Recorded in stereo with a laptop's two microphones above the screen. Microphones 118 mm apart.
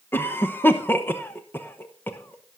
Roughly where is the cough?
Centre.